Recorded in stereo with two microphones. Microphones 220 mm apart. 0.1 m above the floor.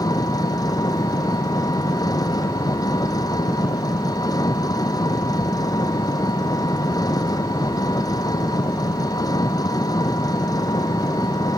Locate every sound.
0.0 s an engine running: 20° left (ahead or behind)